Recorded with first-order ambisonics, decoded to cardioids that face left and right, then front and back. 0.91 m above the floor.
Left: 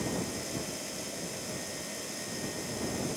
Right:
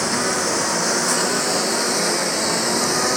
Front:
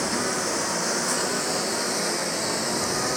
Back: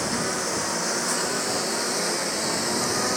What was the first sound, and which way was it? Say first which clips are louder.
A lawn mower: right 15 dB, front 1 dB; 85° right.